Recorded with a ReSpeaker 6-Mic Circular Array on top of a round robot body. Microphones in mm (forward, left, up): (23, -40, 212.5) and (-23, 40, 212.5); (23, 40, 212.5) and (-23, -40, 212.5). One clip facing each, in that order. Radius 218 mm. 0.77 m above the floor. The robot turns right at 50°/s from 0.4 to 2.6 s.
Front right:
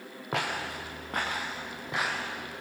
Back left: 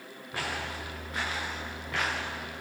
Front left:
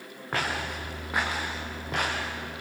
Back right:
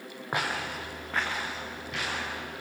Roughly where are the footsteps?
Ahead right.